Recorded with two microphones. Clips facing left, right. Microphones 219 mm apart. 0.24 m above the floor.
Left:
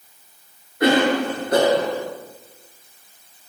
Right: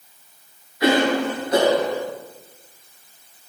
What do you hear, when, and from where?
0.8 s a cough: 55° left (ahead or behind), 4 m